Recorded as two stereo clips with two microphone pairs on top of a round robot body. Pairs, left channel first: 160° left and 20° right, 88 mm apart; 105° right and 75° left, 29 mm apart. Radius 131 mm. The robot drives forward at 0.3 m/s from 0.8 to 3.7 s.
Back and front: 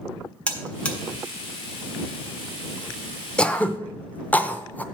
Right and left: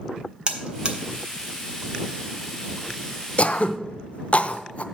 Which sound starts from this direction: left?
A buzzer, at 0.5 s.